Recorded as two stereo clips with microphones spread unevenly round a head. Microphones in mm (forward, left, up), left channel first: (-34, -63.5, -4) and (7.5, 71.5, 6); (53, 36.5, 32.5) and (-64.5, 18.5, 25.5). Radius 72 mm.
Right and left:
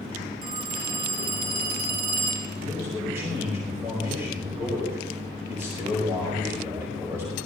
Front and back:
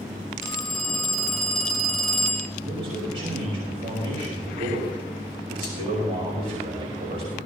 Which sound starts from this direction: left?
A phone ringing, at 0.4 s.